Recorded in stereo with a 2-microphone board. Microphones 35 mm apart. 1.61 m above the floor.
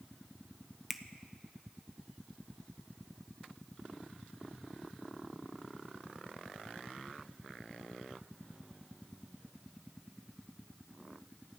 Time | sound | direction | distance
0.9 | a finger snap | centre (ahead or behind) | 0.7 m